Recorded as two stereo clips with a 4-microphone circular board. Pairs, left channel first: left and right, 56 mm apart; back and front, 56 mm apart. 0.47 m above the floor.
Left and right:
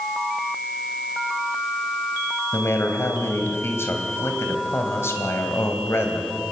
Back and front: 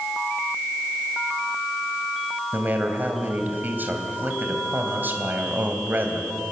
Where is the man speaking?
50° left, 3 m.